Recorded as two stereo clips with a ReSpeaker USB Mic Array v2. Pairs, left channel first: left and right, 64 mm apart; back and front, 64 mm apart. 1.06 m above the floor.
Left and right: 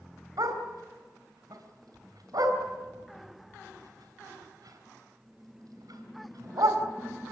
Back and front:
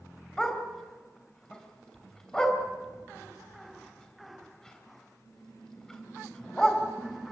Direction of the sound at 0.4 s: 105° right.